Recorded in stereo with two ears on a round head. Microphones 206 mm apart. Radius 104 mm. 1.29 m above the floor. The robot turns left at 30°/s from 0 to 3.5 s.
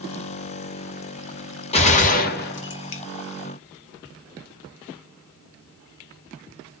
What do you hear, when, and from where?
1.7 s a gunshot: 155° left, 1.0 m; by 3.0 s 115° left, 1.0 m